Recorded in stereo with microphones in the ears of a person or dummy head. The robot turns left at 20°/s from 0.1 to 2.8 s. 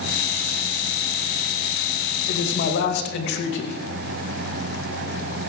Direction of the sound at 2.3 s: 50° left (ahead or behind).